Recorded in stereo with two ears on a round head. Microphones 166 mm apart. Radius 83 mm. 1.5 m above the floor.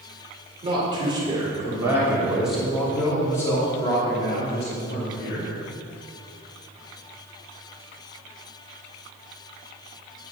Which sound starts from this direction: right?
A man speaking, at 0.6 s.